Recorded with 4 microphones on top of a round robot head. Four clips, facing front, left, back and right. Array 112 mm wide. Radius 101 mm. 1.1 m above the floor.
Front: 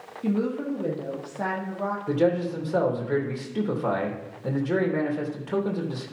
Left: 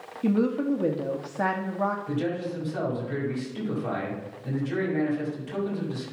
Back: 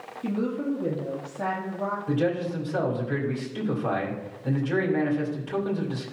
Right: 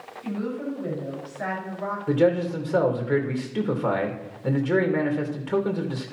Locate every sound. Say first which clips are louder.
0.2 s a woman speaking: left 6 dB, front 1 dB; 75° left, 1.6 m
2.1 s a man speaking: right 8 dB, front 4 dB; 55° right, 2.5 m